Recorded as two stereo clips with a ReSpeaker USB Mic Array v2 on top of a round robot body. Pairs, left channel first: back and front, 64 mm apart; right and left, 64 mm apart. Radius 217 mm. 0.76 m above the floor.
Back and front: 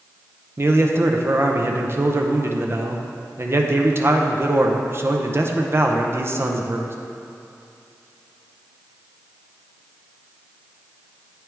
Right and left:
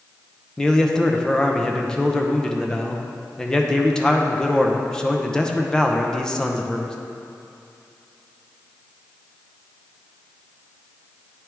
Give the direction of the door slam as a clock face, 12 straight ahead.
No door slam in this recording.